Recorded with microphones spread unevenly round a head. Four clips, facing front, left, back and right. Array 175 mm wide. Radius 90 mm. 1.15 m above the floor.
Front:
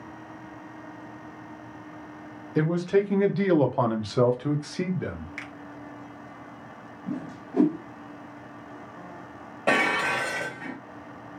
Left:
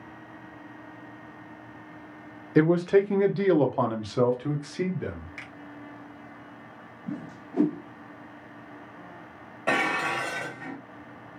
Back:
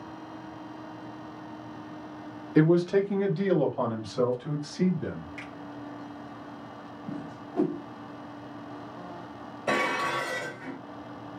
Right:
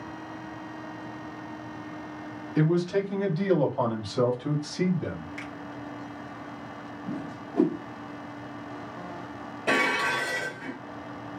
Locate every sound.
2.5 s a man speaking: 100° left, 0.7 m; by 5.3 s 5° left, 1.3 m
5.4 s a finger snap: 10° right, 1.0 m
7.1 s a whoosh: straight ahead, 1.5 m
9.7 s dishes clattering: 10° left, 1.4 m